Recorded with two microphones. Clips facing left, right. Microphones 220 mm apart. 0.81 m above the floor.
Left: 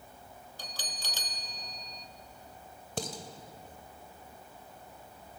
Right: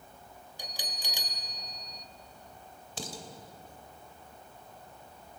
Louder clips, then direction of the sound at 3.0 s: Left 4 dB; 55° left (ahead or behind).